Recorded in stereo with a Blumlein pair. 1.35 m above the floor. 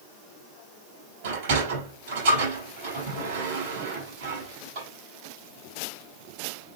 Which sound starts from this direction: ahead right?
A sliding door, at 1.2 s.